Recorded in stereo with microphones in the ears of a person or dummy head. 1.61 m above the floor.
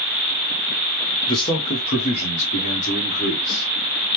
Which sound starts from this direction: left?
A man speaking, at 1.3 s.